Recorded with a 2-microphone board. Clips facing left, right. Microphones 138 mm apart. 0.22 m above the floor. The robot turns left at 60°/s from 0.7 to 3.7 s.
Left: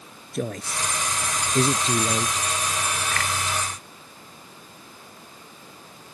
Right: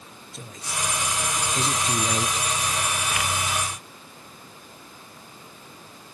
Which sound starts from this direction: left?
A man speaking, at 0.3 s.